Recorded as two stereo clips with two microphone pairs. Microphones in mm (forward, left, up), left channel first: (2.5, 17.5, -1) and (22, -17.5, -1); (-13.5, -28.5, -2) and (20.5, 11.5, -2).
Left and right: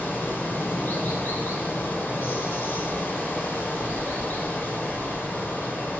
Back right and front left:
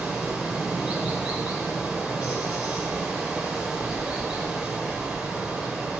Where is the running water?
120° left, 1.7 m.